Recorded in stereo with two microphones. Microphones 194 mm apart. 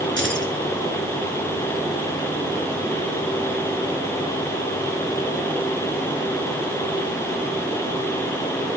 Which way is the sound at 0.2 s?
70° right (ahead or behind).